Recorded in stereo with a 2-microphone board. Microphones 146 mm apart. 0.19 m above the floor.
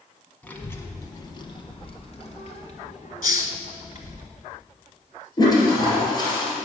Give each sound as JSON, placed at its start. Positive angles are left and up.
{"t": 0.4, "sound": "a child speaking", "side_deg": 10, "distance_m": 1.1}
{"t": 3.2, "sound": "a hiss", "side_deg": 70, "distance_m": 0.6}
{"t": 5.4, "sound": "a toilet flushing", "side_deg": 30, "distance_m": 2.5}